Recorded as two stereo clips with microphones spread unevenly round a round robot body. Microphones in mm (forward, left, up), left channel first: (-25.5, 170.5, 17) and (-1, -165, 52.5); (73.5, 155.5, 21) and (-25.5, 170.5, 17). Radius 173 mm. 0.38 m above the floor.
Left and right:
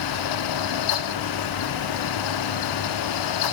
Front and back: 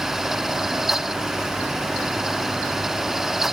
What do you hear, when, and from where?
Only background noise.